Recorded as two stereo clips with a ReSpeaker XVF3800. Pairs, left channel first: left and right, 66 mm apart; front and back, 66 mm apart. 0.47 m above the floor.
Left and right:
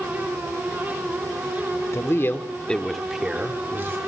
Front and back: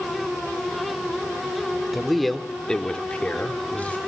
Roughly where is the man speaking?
Left.